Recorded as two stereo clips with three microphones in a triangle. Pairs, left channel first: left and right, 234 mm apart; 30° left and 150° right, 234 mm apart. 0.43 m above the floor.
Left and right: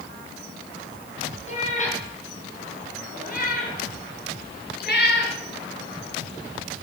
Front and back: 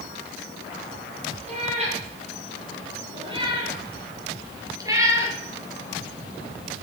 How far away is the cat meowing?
About 6.5 m.